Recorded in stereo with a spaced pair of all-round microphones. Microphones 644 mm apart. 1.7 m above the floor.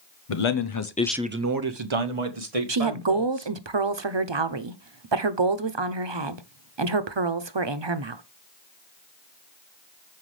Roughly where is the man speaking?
Left.